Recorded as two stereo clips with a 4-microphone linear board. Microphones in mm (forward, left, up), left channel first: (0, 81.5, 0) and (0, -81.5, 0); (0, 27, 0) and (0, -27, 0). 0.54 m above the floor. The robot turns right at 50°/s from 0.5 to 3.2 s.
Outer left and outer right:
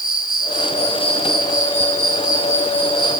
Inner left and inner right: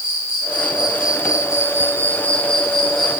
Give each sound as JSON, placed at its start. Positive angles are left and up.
{"t": 0.0, "sound": "an insect", "azimuth_deg": 60, "distance_m": 5.5}